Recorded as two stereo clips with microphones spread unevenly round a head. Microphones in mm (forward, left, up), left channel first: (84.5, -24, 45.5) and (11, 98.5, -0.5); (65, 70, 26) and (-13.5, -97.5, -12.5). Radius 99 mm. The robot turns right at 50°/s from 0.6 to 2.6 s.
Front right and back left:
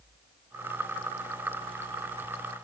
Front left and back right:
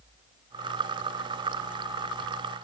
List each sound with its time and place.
Only background noise.